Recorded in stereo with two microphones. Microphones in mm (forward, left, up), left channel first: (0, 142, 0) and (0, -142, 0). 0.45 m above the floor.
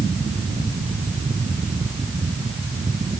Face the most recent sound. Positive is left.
No sound to turn to.